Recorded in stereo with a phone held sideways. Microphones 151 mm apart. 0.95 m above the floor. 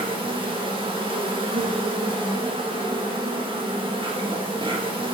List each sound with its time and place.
0.0 s an insect: 35° right (ahead or behind), 1.1 m